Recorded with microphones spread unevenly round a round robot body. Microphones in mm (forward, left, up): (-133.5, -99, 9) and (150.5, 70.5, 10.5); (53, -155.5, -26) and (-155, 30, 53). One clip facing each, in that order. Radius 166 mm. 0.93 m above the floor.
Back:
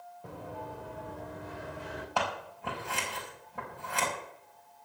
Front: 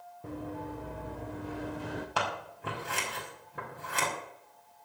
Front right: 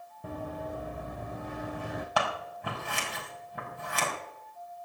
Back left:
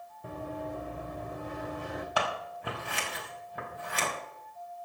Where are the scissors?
40° right, 5.5 m.